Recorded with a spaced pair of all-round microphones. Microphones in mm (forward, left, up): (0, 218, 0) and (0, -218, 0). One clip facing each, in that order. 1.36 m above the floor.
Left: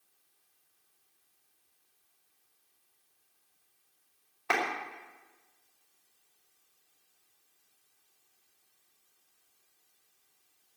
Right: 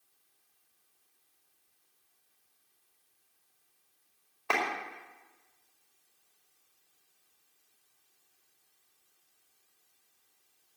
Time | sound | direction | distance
4.5 | a clap | 30° left (ahead or behind) | 5 m